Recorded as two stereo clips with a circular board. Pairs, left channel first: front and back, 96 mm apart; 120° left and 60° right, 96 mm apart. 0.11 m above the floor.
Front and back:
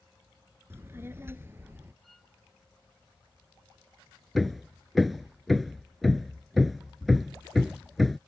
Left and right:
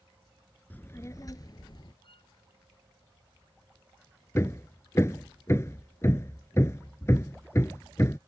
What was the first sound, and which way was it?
A child speaking, 165° left.